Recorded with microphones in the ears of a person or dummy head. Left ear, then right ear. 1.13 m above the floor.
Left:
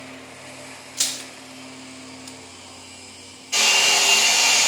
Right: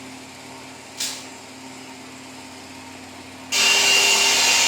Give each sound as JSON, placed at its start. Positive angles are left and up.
{"t": 1.0, "sound": "crushing", "side_deg": 10, "distance_m": 0.5}
{"t": 3.5, "sound": "a hair dryer", "side_deg": -50, "distance_m": 1.6}